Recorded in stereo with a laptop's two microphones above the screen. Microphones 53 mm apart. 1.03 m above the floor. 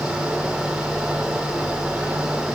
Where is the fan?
10° right (ahead or behind), 3 m.